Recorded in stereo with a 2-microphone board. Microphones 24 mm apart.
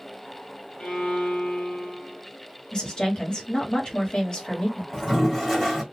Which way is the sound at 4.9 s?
5° left (ahead or behind).